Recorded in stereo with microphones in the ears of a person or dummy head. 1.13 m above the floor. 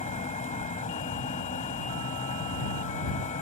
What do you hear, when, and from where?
0.0 s a fan: 35° left (ahead or behind)